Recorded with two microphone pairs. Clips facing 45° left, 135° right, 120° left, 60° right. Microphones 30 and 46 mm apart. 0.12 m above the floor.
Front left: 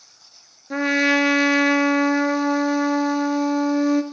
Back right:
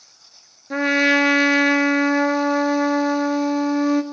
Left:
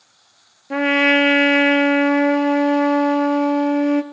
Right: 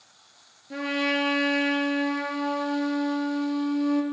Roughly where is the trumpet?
Behind left.